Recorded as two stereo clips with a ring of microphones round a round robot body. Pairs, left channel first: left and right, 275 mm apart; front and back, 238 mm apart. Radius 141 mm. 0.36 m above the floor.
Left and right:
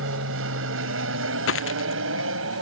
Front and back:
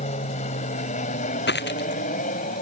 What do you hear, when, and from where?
0.0 s an aircraft: 60° right; by 2.6 s 55° right
1.5 s a dropped coin: 45° left